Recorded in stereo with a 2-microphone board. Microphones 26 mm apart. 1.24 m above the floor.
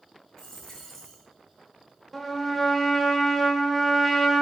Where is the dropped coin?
15° left (ahead or behind), 1.8 m.